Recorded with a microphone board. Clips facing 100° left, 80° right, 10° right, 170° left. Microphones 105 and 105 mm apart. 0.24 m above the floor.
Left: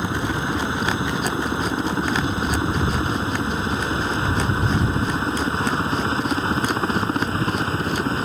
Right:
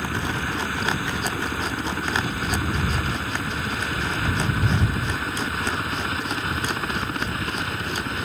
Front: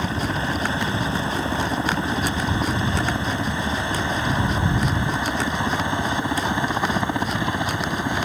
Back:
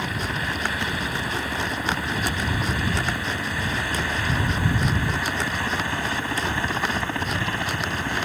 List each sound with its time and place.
0.0 s a helicopter: 40° left; by 8.2 s 55° left